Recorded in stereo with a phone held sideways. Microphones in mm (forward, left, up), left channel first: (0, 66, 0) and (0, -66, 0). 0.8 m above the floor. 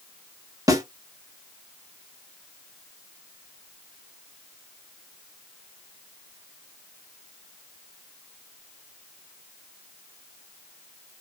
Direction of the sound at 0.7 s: 25° right (ahead or behind).